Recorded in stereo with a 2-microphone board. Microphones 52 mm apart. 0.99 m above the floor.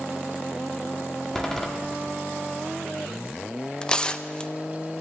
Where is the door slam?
10° left (ahead or behind), 1.5 m.